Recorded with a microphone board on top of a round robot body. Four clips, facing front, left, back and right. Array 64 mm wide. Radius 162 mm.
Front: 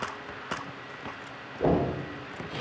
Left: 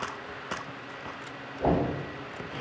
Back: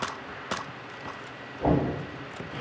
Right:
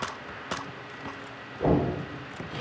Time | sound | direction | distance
1.6 | knocking | 10° right | 1.5 m